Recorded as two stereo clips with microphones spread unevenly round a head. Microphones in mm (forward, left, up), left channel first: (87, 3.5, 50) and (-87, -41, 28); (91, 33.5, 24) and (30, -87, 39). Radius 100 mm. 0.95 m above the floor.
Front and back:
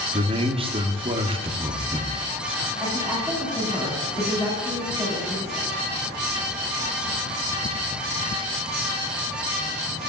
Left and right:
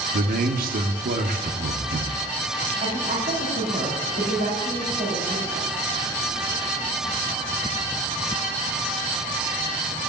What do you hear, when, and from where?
0.1 s a man speaking: 105° right, 1.8 m
2.8 s a woman speaking: 85° right, 6.5 m